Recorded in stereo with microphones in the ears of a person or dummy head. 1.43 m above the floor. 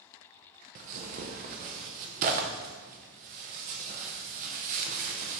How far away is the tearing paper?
About 0.7 m.